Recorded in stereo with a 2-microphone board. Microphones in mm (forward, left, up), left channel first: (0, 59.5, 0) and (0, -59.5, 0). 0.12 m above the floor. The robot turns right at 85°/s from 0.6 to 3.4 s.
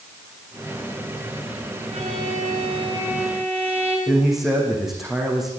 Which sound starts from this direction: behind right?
A violin, at 1.9 s.